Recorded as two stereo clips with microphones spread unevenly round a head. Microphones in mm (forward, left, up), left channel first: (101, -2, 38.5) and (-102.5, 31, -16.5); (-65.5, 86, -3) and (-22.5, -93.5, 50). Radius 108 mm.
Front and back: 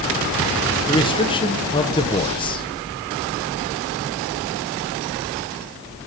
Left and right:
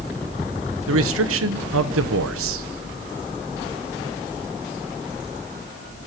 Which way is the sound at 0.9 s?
80° right.